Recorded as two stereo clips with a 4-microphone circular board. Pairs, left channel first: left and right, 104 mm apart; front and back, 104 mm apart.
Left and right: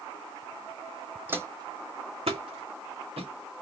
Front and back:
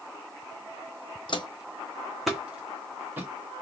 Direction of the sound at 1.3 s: 20° right.